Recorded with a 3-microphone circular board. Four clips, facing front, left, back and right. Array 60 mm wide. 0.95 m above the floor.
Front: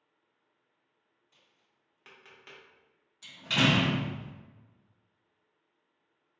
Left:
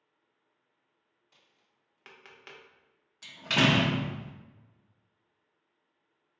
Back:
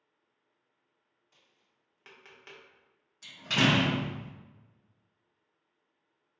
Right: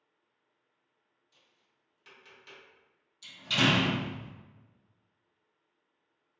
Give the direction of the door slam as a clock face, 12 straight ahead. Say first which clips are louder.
Left 2 dB, even; 9 o'clock.